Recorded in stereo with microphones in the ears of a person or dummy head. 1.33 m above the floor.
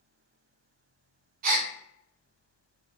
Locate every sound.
1.4 s a gasp: 50° right (ahead or behind), 0.5 m